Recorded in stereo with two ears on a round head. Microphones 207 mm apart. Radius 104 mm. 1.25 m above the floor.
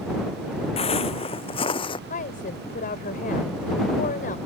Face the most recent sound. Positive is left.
turn(degrees=40)  # may be behind; listen again after turning